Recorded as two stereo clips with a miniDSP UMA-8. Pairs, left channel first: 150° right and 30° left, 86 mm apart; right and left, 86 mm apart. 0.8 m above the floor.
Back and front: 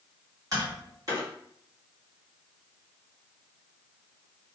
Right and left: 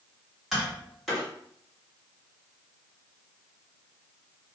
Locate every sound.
0.5 s tapping: straight ahead, 1.5 m